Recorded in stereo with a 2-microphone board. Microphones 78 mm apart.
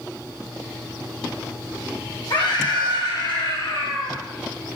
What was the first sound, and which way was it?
A scream, 75° left (ahead or behind).